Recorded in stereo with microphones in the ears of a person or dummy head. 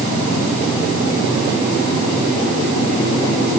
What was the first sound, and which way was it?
Only background noise.